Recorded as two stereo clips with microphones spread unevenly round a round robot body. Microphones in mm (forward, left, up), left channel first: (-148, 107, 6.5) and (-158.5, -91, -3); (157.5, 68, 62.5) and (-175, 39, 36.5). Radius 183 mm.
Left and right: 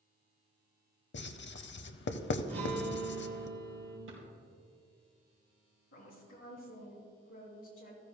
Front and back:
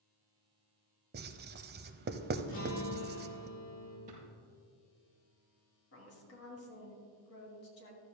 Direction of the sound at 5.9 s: 55° left.